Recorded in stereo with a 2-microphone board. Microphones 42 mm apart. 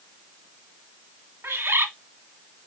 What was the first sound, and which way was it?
A bird, 80° right.